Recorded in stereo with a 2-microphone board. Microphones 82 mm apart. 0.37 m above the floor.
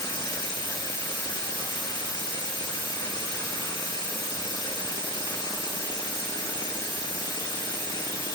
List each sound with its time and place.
0.0 s running water: 80° left, 2.5 m